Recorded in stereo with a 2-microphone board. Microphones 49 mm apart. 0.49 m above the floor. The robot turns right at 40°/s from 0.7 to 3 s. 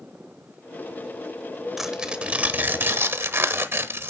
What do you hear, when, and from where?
1.8 s tearing paper: 170° right, 1.0 m; by 4.1 s 120° right, 1.0 m